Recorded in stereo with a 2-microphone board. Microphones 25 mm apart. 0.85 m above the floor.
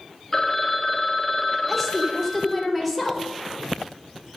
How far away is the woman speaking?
About 3 m.